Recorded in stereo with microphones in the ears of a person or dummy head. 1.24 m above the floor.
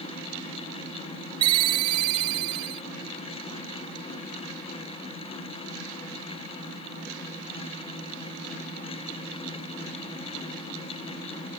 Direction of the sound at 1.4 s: 25° right (ahead or behind).